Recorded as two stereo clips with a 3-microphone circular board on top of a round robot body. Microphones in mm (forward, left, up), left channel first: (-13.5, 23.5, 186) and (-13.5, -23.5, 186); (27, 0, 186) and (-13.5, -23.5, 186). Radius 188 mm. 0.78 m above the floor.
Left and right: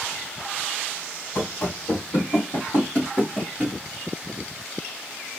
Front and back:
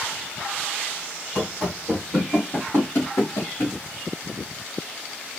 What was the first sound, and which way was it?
Running footsteps, 115° left.